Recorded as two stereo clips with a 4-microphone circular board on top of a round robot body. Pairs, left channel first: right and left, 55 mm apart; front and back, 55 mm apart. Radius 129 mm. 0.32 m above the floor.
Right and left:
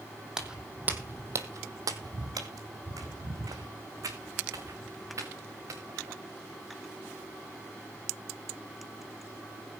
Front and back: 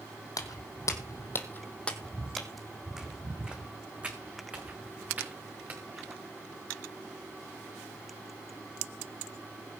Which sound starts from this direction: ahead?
Footsteps, at 0.4 s.